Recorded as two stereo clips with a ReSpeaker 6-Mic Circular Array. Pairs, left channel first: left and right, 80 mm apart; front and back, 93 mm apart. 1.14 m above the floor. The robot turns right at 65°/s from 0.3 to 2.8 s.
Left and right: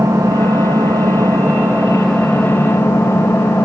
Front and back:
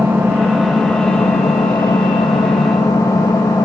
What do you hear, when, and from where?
0.0 s an engine running: 120° right, 1.4 m; by 3.7 s 40° left, 1.4 m